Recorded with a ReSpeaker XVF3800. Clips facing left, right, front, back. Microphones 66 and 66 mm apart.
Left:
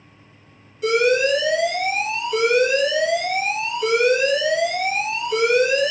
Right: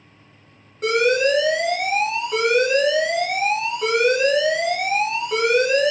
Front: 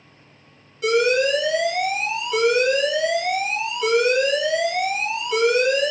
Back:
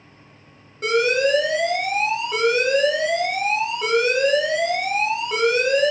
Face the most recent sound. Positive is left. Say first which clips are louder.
# even, front 1 dB
turn(degrees=-130)